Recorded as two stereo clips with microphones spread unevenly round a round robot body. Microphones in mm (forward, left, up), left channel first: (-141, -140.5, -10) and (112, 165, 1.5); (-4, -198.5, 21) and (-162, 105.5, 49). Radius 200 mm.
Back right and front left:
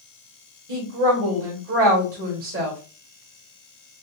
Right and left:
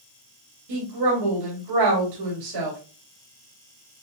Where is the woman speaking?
110° left, 1.8 m.